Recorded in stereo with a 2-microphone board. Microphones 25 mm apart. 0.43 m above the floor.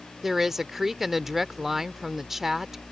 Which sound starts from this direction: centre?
A woman speaking, at 0.2 s.